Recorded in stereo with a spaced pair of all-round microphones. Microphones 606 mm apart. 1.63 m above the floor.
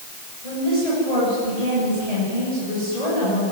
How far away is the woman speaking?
About 10 m.